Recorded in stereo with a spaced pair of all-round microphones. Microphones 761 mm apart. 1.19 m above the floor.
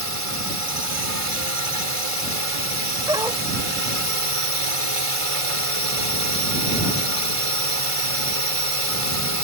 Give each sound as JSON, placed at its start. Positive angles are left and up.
{"t": 0.0, "sound": "a drone", "side_deg": -45}
{"t": 3.1, "sound": "a dog barking", "side_deg": -5}